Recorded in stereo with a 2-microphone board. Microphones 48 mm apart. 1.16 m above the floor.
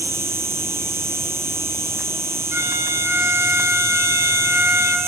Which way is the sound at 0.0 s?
65° right (ahead or behind).